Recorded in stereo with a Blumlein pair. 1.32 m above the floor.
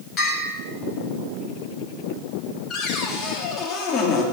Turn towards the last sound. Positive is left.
turn(degrees=25)